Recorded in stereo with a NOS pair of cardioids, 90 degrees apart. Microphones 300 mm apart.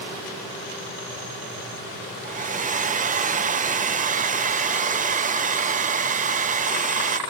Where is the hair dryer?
25° right.